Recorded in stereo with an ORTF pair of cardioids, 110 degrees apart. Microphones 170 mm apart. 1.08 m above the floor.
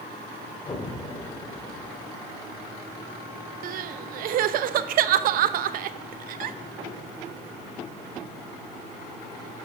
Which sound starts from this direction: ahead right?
Crying, at 3.6 s.